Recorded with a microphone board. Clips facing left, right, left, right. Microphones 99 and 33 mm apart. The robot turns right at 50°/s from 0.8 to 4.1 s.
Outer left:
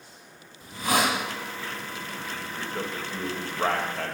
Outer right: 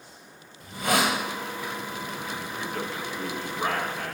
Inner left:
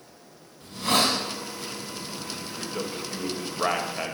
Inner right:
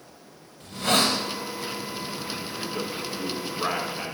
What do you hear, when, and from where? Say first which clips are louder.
0.6 s a hiss: even, inner right 1 dB; 65° right (ahead or behind), 2.5 m; by 1.2 s 60° right (ahead or behind), 2.5 m
2.4 s a man speaking: outer left 1 dB, inner left 1 dB; 5° right (ahead or behind), 1.5 m; by 4.2 s 60° left (ahead or behind), 1.5 m